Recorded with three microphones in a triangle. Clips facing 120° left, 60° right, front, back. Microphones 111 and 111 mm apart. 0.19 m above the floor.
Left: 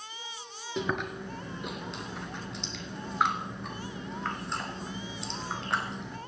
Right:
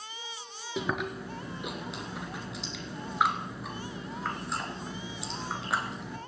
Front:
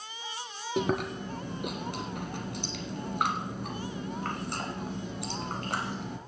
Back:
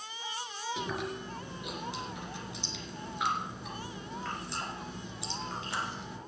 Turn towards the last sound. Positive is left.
turn(degrees=25)